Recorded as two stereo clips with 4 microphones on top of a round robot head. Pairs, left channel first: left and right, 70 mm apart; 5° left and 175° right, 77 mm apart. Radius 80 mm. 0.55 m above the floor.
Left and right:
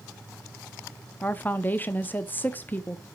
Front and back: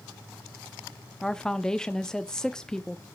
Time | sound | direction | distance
1.2 | a woman speaking | 80° left | 0.6 m